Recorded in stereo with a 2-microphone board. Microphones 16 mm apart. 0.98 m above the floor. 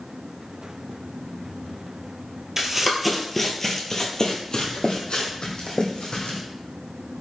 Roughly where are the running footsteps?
Right.